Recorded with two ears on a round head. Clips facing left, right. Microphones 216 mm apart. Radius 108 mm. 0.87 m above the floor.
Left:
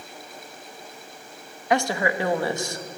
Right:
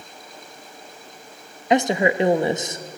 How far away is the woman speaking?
About 0.8 m.